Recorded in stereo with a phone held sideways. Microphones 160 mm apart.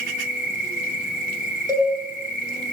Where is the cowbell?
25° left (ahead or behind), 9 m.